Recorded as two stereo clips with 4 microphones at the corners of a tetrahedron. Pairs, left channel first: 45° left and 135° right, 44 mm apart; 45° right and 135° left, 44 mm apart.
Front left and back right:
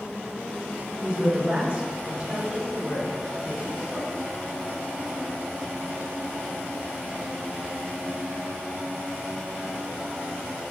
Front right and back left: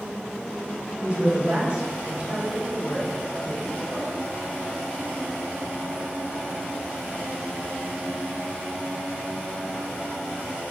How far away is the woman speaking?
About 1.4 m.